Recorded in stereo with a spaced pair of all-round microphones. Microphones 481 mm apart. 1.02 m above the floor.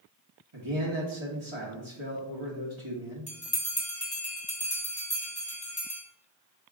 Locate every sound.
0.5 s a man speaking: 75° right (ahead or behind), 1.2 m
3.3 s a bell: 15° left (ahead or behind), 1.4 m